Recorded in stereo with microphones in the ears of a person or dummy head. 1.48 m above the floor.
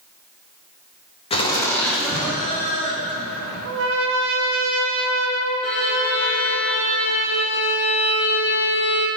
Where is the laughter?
35° left (ahead or behind), 1.8 m; by 3.5 s 25° right (ahead or behind), 4 m.